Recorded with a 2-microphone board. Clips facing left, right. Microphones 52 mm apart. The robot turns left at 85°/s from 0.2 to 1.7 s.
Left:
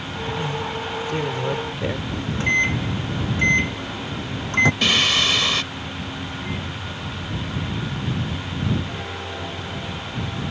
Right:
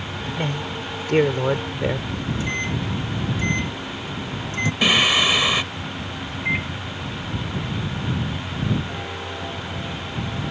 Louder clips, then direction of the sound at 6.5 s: Right 10 dB; 70° right (ahead or behind).